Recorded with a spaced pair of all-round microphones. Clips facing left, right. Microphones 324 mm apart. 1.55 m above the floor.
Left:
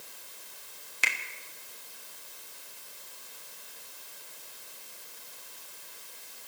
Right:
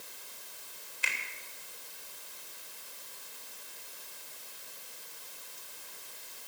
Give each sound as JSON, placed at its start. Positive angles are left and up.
{"t": 1.0, "sound": "a finger snap", "side_deg": 85, "distance_m": 1.2}